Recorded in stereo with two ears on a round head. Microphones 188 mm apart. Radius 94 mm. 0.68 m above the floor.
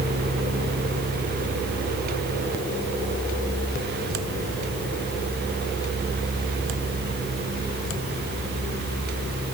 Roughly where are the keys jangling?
No keys jangling in this recording.